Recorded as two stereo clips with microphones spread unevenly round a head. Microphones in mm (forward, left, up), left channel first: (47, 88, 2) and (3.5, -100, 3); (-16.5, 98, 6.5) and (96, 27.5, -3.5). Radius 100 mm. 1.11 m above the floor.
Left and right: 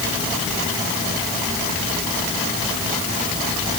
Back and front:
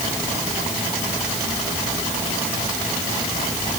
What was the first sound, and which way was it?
Only background noise.